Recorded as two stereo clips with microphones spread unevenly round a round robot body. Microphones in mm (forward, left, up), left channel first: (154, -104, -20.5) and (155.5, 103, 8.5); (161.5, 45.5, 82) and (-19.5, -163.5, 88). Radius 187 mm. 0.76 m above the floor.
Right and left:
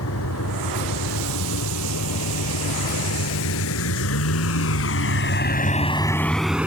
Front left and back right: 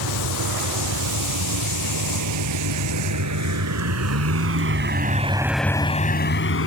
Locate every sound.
0.0 s a vehicle: 125° right; by 6.7 s 10° left